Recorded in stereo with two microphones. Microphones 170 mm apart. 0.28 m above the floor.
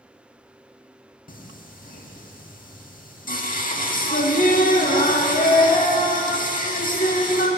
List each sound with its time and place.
1.3 s singing: 55° left (ahead or behind), 0.5 m